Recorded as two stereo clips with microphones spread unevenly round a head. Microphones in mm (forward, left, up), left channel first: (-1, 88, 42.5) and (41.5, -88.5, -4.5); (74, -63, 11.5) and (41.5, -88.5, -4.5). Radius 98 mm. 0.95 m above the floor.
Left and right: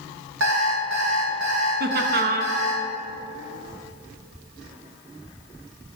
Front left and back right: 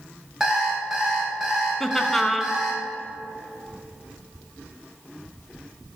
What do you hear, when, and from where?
0.4 s an alarm clock: 60° right, 2 m
1.8 s laughter: 55° right, 0.8 m